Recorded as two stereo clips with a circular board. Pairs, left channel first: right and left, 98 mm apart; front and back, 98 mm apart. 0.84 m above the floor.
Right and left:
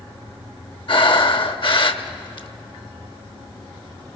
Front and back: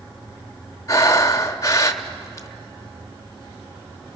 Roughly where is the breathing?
Ahead right.